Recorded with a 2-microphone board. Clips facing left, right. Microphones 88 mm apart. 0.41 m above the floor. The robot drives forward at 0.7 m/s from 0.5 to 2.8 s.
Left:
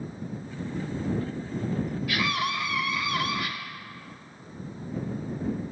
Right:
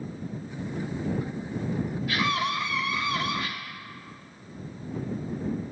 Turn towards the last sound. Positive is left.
turn(degrees=-30)  # may be behind; listen again after turning